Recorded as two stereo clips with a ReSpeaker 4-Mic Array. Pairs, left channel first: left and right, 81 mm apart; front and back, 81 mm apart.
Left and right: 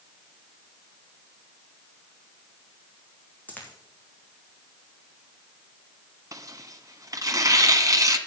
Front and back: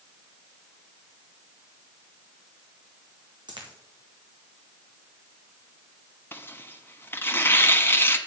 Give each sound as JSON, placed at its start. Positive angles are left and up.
{"t": 3.5, "sound": "a dropped coin", "azimuth_deg": 160, "distance_m": 3.0}
{"t": 6.3, "sound": "tearing paper", "azimuth_deg": -55, "distance_m": 1.3}